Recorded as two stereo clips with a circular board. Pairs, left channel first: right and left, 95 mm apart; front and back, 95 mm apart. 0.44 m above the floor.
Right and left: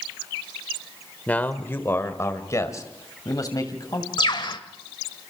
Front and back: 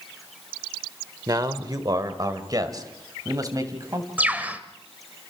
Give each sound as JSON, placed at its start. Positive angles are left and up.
{"t": 1.3, "sound": "a man speaking", "azimuth_deg": -160, "distance_m": 1.6}
{"t": 4.2, "sound": "a bird", "azimuth_deg": -110, "distance_m": 1.5}